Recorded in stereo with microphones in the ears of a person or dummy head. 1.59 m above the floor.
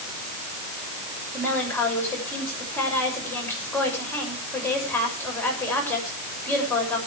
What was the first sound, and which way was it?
A woman speaking, 10° left (ahead or behind).